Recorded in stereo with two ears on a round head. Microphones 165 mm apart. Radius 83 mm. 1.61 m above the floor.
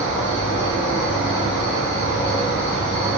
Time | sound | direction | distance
0.0 | an insect | 60° left (ahead or behind) | 0.9 m